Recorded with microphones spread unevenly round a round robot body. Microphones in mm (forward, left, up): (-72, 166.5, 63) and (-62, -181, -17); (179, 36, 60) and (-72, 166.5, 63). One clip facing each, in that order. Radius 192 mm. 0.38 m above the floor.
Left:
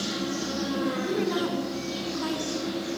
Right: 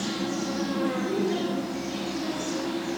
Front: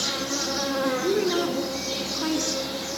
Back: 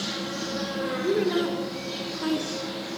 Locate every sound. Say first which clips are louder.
0.0 s an insect: right 1 dB, front 2 dB; straight ahead, 4 m
1.0 s a woman speaking: even, back 2 dB; 60° left, 5.5 m